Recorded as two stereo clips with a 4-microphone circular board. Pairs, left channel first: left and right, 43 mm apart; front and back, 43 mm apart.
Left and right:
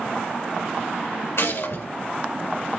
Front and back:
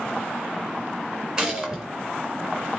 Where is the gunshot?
100° left, 4.5 m.